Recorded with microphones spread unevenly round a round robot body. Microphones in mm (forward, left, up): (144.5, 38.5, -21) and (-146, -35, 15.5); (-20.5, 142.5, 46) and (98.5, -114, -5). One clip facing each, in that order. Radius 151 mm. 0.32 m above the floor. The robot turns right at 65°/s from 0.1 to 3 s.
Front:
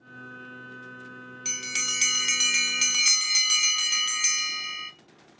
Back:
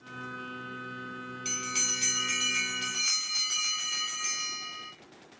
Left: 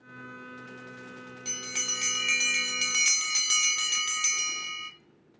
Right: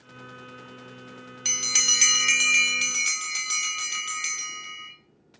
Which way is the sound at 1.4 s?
60° right.